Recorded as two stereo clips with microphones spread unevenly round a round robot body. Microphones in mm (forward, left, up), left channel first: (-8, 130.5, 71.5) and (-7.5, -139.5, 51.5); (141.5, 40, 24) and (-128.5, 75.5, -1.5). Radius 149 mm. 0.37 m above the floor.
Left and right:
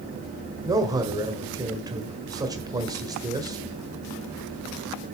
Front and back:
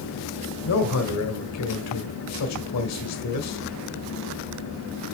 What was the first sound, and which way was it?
A man speaking, 20° right.